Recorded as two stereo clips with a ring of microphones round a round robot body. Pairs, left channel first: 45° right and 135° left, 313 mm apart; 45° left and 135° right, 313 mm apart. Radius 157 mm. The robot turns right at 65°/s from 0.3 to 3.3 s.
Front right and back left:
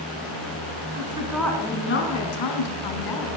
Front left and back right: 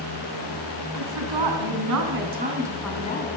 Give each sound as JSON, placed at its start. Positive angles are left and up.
{"t": 0.9, "sound": "a woman speaking", "azimuth_deg": -165, "distance_m": 4.0}